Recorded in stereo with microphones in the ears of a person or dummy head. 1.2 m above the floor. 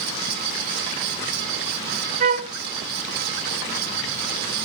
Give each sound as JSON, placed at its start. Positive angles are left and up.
{"t": 2.2, "sound": "a flute", "side_deg": -35, "distance_m": 1.1}